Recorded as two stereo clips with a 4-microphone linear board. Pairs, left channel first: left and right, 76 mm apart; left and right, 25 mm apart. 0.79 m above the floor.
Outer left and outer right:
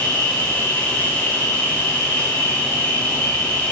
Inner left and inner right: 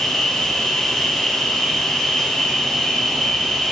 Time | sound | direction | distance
0.0 | an insect | 20° left (ahead or behind) | 1.0 m